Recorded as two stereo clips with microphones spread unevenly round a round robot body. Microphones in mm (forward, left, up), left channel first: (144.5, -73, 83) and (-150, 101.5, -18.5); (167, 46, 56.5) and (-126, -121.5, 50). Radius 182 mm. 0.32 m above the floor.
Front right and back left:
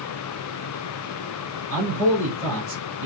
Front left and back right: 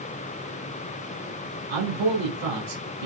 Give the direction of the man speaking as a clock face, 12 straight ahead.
5 o'clock.